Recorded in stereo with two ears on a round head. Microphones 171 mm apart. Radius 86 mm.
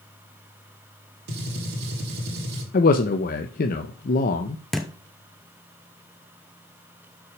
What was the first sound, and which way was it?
A gunshot, 60° right (ahead or behind).